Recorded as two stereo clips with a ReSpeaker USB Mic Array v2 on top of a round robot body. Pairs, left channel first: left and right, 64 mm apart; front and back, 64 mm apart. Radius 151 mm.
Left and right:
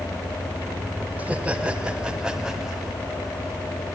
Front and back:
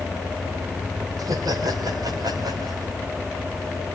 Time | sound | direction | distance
1.2 | laughter | 160° right | 2.5 m